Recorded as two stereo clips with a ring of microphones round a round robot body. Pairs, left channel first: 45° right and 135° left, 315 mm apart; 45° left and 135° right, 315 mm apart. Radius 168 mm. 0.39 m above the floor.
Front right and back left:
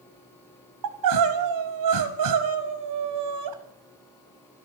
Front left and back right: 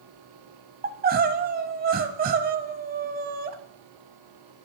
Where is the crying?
165° left, 1.4 m.